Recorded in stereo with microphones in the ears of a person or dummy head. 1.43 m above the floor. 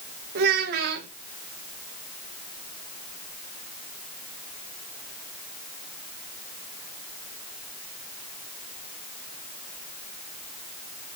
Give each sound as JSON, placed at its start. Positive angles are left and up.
{"t": 0.3, "sound": "a child speaking", "side_deg": -50, "distance_m": 0.8}